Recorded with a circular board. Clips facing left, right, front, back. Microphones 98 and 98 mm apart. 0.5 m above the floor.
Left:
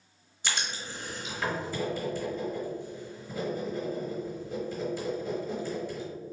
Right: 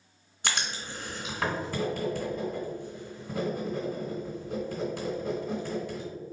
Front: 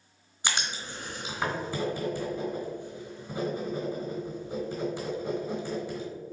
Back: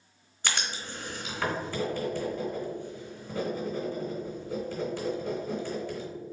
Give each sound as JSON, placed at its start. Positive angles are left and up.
{"t": 0.4, "sound": "writing", "azimuth_deg": -70, "distance_m": 1.9}